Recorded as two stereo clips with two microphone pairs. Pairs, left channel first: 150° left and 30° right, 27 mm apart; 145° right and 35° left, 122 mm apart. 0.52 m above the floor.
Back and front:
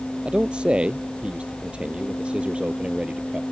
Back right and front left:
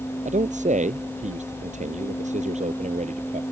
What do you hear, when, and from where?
0.2 s a man speaking: 25° left; by 3.4 s 20° left